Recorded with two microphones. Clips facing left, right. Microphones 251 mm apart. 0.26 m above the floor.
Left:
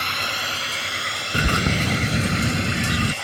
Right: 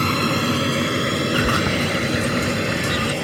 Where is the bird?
30° left (ahead or behind).